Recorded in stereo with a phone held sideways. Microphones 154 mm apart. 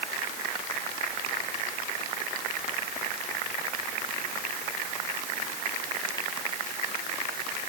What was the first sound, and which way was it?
Only background noise.